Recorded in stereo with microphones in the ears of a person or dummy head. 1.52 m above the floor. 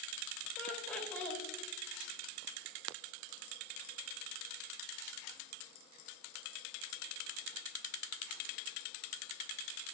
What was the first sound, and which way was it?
Laughter, 10° left (ahead or behind).